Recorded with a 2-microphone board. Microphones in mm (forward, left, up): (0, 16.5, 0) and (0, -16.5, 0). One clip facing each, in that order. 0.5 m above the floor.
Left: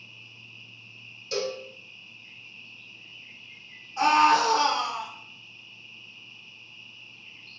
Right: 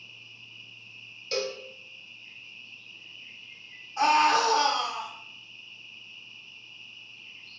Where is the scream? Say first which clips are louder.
Left 2 dB; centre (ahead or behind), 1.0 m.